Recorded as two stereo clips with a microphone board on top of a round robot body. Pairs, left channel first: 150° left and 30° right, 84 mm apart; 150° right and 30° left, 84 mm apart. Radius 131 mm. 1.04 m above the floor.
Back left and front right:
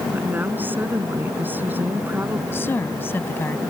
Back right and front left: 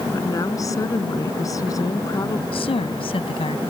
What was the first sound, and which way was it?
A woman speaking, 100° right.